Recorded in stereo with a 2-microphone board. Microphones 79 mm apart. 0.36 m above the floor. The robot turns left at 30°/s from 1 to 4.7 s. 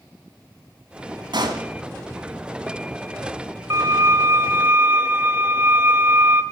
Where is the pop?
70° right (ahead or behind), 1.5 m; by 1.6 s 65° right (ahead or behind), 1.5 m.